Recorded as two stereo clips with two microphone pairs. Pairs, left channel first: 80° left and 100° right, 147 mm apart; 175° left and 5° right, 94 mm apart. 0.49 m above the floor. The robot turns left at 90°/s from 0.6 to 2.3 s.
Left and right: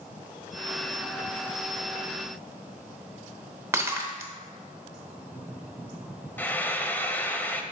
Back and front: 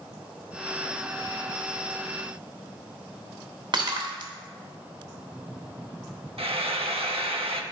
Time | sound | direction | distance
3.7 | breaking glass | 35° right | 0.9 m
6.4 | frying | straight ahead | 0.6 m